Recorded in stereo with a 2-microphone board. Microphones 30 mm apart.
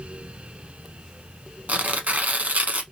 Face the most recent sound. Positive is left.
turn(degrees=-60)  # may be behind; listen again after turning